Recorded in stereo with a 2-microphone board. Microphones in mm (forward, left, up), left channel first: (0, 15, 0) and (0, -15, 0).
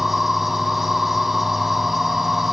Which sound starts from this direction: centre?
An insect, at 0.0 s.